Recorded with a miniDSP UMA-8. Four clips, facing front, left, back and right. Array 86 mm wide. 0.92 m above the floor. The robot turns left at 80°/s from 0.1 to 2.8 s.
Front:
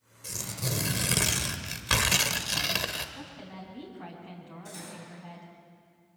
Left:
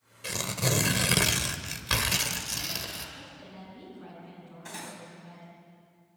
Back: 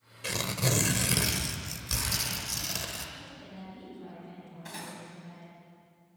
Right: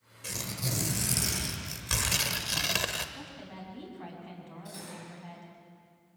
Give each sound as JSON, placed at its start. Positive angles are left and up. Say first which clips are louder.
{"t": 0.2, "sound": "tearing paper", "louder": "left 7 dB, back 6 dB", "azimuth_deg": 155, "distance_m": 1.3}
{"t": 3.1, "sound": "a woman speaking", "louder": "right 2 dB, front 3 dB", "azimuth_deg": -45, "distance_m": 6.5}
{"t": 4.7, "sound": "cutlery clinking", "louder": "left 4 dB, back 3 dB", "azimuth_deg": 135, "distance_m": 3.5}